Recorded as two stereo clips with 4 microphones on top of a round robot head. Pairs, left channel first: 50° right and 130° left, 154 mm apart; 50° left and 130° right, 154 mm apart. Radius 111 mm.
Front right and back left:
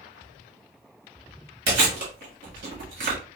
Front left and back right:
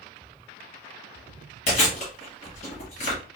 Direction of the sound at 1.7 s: 105° left.